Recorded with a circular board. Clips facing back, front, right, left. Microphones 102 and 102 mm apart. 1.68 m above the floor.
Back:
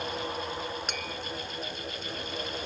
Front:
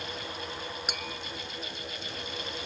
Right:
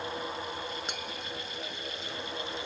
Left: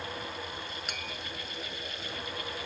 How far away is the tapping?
About 1.0 m.